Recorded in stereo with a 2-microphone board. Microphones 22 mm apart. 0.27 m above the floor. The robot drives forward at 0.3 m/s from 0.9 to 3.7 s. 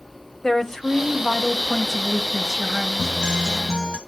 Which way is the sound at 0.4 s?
25° left (ahead or behind).